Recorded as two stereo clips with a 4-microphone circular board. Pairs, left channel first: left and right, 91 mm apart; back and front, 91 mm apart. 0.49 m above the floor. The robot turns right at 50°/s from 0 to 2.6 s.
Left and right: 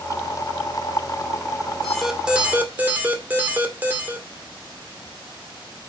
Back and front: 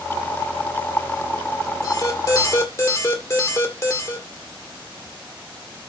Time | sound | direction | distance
1.8 | an alarm | 175° left | 1.9 m